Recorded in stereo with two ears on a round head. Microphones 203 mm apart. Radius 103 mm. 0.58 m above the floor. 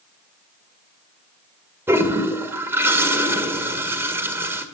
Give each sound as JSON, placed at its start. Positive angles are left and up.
{"t": 1.9, "sound": "a toilet flushing", "side_deg": -10, "distance_m": 1.5}